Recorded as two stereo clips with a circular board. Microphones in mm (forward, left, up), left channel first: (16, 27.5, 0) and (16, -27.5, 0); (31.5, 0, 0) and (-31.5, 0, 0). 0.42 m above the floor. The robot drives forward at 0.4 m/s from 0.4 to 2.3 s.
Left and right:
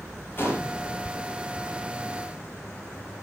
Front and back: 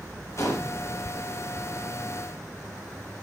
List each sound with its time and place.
0.4 s a gunshot: 40° left, 8.5 m